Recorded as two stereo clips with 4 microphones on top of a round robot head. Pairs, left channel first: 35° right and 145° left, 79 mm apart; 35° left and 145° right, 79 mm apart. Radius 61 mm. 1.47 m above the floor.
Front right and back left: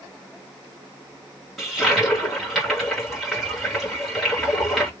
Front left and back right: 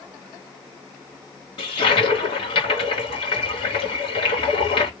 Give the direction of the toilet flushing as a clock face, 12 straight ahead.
10 o'clock.